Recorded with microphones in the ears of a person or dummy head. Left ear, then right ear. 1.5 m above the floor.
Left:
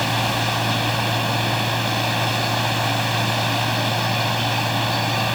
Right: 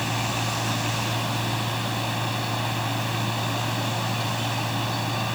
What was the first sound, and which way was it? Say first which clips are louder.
A machine running: left 6 dB; 25° left (ahead or behind).